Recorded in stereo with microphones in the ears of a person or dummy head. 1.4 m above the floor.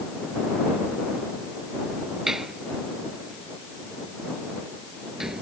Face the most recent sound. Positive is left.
turn(degrees=-5)  # may be behind; listen again after turning